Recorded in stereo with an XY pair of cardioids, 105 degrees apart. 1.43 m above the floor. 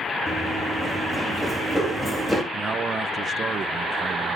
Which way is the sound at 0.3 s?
15° left.